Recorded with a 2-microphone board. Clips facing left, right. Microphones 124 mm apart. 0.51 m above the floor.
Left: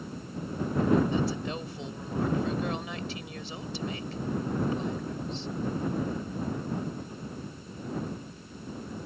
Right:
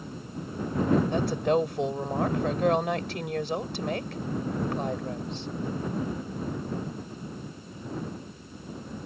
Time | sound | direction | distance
1.1 | a woman speaking | 65° right (ahead or behind) | ?